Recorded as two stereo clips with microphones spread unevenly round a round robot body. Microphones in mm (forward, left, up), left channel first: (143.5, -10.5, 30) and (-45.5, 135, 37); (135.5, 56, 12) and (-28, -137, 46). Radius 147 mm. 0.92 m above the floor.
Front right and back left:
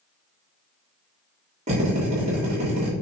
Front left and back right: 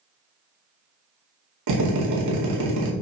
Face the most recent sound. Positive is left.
turn(degrees=-150)